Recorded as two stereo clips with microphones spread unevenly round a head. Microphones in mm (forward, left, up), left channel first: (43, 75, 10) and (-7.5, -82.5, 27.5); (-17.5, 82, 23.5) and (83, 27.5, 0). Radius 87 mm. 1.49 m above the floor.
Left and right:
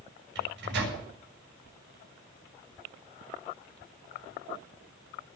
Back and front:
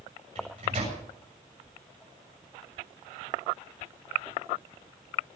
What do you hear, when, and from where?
0.3 s a microwave: 90° right, 7 m